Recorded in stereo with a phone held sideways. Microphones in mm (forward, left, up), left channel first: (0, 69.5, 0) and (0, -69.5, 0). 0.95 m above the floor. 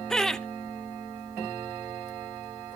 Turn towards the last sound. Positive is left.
turn(degrees=5)  # may be behind; listen again after turning